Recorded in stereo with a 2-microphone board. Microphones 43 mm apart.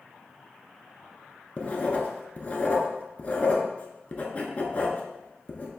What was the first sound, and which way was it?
Writing, 30° left (ahead or behind).